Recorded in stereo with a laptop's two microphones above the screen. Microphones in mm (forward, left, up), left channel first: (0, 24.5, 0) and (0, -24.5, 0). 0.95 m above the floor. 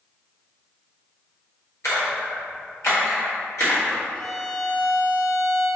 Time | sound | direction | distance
1.8 | a splash | 70° left (ahead or behind) | 1.4 m
4.1 | a violin | 30° left (ahead or behind) | 1.0 m